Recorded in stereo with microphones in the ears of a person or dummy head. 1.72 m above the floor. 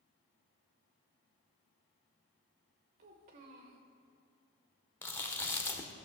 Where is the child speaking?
30° right (ahead or behind), 0.9 m.